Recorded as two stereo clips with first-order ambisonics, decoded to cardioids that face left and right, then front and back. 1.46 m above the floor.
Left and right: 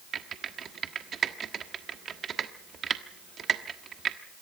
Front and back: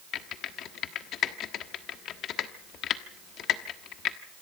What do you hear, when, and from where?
0.1 s typing on a keyboard: 30° right, 1.3 m